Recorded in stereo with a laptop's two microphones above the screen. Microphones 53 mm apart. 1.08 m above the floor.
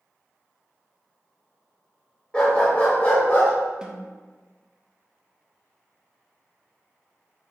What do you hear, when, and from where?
2.3 s a dog barking: 20° left (ahead or behind), 1.2 m; by 3.5 s 50° left (ahead or behind), 1.4 m
3.8 s a snare drum: 15° right (ahead or behind), 0.8 m